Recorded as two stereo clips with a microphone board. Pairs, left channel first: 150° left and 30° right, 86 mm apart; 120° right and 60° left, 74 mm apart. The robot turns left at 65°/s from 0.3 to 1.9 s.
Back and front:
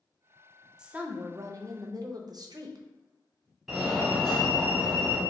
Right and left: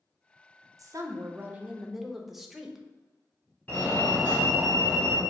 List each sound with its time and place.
0.8 s a woman speaking: 45° left, 0.6 m; by 2.9 s 25° right, 0.6 m
3.7 s a fire alarm: 120° right, 1.2 m